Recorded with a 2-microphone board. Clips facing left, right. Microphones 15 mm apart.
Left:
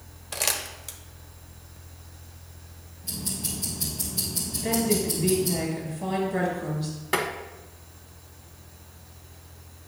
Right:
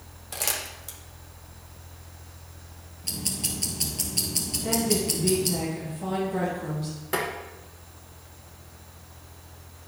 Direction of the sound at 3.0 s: 50° right (ahead or behind).